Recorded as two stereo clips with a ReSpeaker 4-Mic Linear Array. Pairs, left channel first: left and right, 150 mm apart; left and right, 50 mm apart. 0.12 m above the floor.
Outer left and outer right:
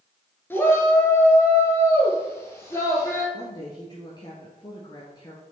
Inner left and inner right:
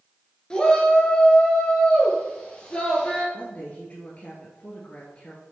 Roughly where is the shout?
Centre.